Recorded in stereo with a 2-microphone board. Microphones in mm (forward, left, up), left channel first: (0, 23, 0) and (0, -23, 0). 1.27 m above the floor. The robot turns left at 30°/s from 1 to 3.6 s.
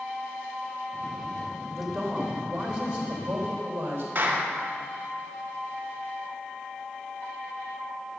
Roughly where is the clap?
Right.